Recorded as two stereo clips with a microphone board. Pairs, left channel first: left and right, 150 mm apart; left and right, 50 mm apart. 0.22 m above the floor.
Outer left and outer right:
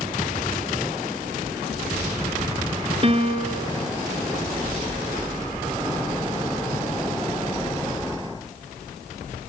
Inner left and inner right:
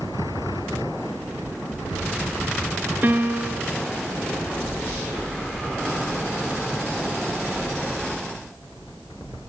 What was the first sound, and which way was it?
A piano, 40° right (ahead or behind).